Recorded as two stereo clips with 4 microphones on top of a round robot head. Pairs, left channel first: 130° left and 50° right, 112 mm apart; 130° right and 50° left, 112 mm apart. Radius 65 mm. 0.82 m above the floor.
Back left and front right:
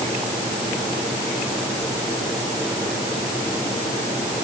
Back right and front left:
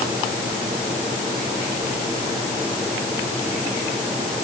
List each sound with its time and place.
Only background noise.